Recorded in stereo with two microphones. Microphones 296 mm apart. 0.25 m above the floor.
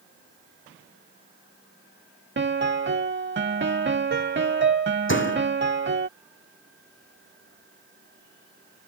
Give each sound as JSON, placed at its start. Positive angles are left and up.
{"t": 2.4, "sound": "a piano", "side_deg": -40}
{"t": 5.1, "sound": "a door slam", "side_deg": 40}